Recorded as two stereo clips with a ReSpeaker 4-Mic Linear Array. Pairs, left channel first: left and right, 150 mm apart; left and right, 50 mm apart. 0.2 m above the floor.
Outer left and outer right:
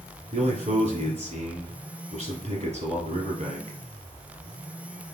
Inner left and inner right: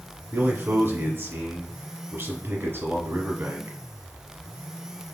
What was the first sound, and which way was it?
A man speaking, 55° right (ahead or behind).